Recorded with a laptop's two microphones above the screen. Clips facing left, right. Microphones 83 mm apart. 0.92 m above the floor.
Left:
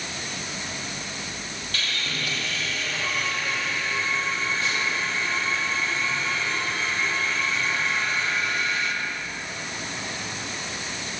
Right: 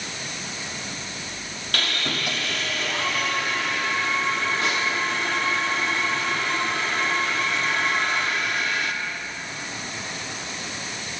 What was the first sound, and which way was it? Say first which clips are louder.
Sawing: right 4 dB; 65° right (ahead or behind).